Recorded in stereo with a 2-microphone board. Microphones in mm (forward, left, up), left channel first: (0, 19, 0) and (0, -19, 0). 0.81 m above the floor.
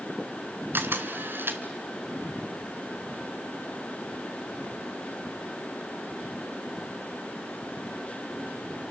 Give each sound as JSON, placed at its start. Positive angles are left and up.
{"t": 0.7, "sound": "a camera shutter", "side_deg": -60, "distance_m": 1.4}